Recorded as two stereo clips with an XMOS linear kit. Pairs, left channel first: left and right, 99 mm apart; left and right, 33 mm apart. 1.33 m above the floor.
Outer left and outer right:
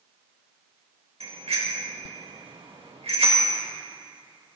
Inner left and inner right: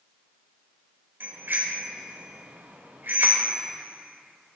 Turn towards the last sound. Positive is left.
turn(degrees=-85)